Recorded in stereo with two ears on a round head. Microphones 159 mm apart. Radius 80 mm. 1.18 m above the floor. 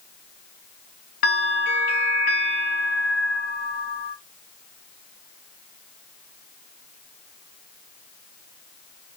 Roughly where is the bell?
Left.